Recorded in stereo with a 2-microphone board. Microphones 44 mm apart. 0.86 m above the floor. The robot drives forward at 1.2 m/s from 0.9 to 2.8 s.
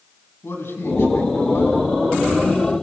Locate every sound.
0.4 s a man speaking: 65° left (ahead or behind), 6 m; by 1.9 s 75° left (ahead or behind), 5.5 m